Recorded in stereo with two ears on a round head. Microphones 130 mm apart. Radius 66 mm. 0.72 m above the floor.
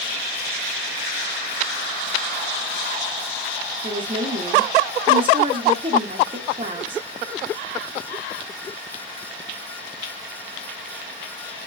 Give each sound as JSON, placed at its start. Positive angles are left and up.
{"t": 3.8, "sound": "a woman speaking", "side_deg": -35, "distance_m": 0.6}